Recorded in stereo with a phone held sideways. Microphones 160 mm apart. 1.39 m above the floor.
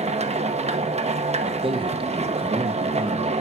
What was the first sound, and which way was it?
A machine running, 40° right (ahead or behind).